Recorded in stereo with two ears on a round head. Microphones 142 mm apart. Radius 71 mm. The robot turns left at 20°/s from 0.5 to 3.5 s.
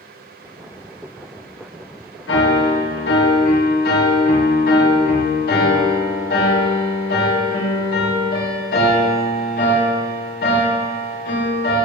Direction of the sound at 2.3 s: 85° left.